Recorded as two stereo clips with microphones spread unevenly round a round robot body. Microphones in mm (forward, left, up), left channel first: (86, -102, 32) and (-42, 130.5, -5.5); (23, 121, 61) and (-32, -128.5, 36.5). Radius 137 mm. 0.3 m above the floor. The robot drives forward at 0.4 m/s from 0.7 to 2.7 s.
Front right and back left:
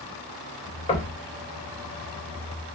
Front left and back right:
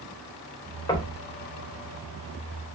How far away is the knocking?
About 0.7 m.